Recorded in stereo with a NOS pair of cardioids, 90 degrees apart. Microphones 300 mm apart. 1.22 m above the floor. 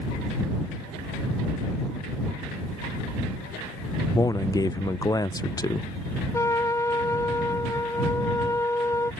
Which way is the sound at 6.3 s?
10° left.